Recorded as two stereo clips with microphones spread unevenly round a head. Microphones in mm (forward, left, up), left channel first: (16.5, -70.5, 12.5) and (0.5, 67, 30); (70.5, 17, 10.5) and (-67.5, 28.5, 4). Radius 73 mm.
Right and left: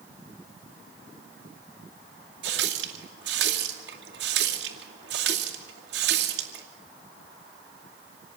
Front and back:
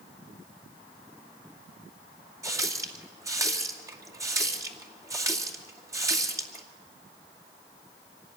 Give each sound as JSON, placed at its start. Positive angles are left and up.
{"t": 2.4, "sound": "a running tap", "azimuth_deg": 105, "distance_m": 2.5}